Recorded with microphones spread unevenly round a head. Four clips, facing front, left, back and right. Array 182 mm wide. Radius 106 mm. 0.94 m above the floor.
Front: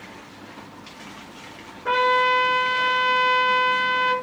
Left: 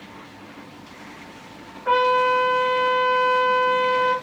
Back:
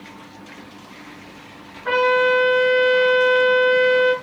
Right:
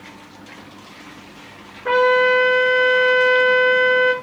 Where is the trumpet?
80° right, 4.5 m.